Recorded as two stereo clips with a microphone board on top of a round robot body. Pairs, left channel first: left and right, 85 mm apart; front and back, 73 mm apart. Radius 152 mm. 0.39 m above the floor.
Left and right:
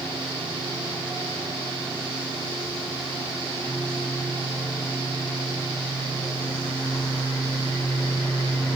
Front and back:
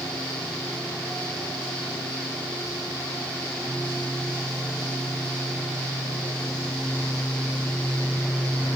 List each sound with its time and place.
Only background noise.